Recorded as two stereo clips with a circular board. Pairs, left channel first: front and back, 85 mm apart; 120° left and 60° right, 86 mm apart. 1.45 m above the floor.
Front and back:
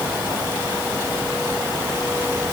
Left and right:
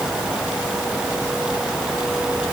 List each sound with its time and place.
Only background noise.